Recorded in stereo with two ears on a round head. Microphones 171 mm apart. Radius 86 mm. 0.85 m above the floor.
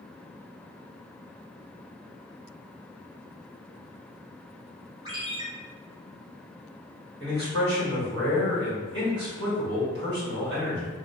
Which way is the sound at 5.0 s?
25° right (ahead or behind).